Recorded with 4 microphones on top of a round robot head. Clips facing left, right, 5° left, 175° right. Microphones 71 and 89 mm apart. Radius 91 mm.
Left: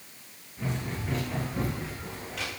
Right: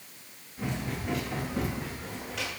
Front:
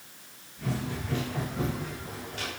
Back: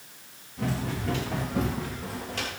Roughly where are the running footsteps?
Behind.